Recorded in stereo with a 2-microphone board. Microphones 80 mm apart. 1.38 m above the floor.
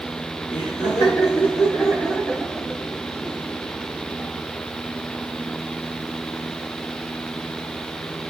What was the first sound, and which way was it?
Laughter, 55° left (ahead or behind).